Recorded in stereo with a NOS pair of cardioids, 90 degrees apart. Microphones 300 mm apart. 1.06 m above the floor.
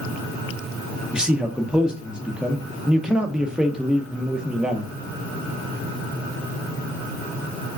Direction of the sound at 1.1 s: 5° right.